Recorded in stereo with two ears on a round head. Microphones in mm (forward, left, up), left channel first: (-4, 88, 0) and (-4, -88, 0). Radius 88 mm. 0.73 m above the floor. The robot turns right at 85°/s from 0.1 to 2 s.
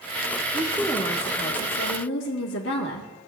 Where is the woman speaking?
25° right, 1.3 m; by 3.1 s 100° left, 1.3 m.